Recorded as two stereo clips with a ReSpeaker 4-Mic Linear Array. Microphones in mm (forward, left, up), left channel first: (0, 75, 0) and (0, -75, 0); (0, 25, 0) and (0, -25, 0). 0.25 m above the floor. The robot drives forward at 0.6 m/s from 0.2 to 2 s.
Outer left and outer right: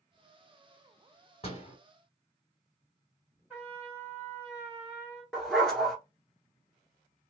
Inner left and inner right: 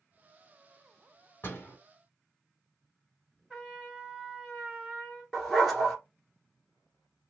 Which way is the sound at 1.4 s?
40° left (ahead or behind).